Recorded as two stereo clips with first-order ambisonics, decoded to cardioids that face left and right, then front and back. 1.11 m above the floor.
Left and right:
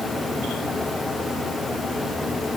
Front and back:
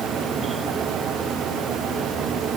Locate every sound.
Only background noise.